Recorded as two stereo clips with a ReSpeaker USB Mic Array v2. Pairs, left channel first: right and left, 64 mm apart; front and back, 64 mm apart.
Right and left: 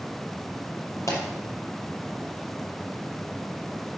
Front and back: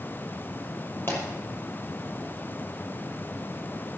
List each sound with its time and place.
1.1 s a pop: 55° right, 5.5 m